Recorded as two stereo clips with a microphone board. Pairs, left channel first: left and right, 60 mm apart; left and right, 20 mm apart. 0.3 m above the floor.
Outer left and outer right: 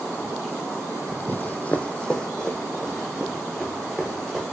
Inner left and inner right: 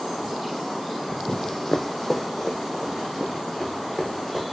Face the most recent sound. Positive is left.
turn(degrees=0)  # may be behind; listen again after turning